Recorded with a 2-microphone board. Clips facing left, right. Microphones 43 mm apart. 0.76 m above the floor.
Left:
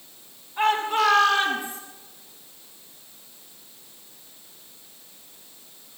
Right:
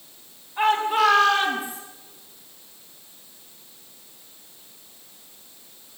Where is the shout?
5° right (ahead or behind), 7.5 m; by 1.8 s 10° right (ahead or behind), 7.5 m.